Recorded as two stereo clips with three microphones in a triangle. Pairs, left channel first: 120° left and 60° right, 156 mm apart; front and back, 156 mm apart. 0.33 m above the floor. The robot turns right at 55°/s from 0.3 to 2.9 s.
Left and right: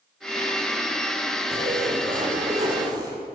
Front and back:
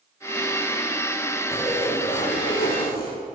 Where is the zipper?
70° right, 8 m; by 3.2 s 5° left, 8 m.